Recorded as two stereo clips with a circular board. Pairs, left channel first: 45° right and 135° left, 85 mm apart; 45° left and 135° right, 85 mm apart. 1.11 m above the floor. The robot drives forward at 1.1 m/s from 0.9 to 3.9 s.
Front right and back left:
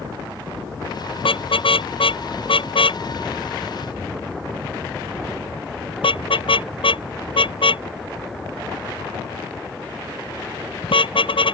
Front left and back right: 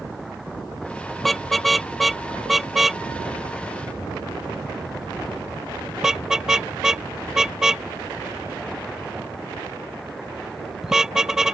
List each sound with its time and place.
1.2 s a car horn: 45° right; by 11.6 s 50° right